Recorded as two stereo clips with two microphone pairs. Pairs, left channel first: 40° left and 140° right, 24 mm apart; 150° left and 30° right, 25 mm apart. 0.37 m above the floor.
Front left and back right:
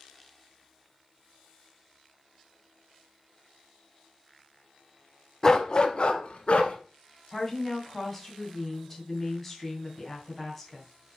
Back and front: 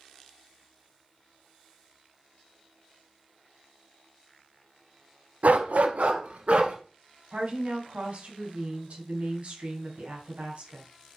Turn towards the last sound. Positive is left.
turn(degrees=-45)